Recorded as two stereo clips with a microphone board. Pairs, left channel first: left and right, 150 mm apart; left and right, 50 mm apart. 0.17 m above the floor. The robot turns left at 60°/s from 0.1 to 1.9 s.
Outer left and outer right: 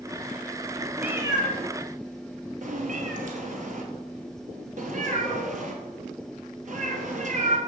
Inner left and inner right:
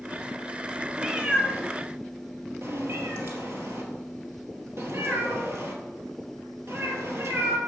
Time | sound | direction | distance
1.0 | a cat meowing | 5° right (ahead or behind) | 1.0 m